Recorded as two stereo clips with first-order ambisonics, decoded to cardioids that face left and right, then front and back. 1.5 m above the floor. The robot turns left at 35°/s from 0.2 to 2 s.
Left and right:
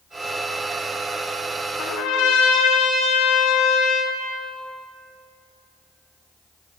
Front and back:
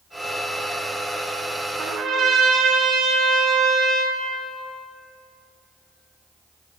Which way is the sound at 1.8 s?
125° left.